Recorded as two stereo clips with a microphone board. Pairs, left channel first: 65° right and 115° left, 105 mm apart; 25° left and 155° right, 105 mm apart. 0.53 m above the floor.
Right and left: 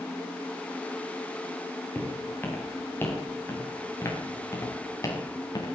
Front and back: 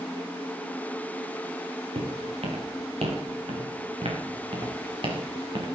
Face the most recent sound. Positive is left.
turn(degrees=-120)